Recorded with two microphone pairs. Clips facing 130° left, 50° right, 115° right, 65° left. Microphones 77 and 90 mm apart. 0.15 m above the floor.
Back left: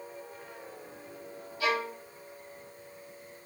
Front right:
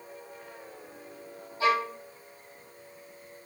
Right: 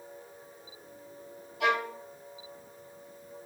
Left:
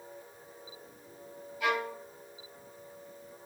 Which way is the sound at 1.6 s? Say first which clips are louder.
Front right 4 dB, right 3 dB; 105° right.